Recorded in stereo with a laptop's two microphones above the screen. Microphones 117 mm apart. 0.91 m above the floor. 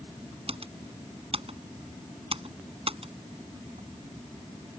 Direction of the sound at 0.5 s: 55° right (ahead or behind).